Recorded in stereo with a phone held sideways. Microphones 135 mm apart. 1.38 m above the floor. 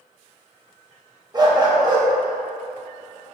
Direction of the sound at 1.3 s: 30° right (ahead or behind).